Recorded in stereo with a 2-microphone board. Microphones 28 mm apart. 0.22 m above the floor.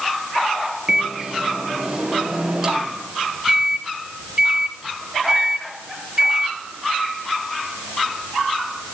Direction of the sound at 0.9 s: 30° right (ahead or behind).